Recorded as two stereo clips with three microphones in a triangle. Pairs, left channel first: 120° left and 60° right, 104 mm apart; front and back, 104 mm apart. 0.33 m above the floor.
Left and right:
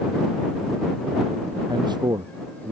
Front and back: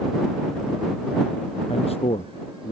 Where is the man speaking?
15° right.